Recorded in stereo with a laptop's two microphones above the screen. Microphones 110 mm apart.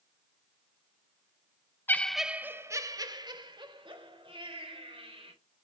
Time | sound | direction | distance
1.9 | laughter | 20° left (ahead or behind) | 0.6 m